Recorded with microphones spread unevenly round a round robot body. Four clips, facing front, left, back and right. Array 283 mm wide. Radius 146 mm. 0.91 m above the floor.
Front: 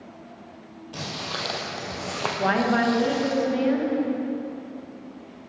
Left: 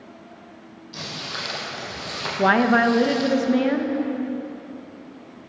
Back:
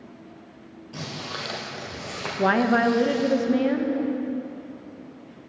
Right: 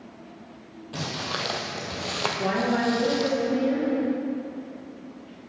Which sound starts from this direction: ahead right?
Footsteps, at 0.9 s.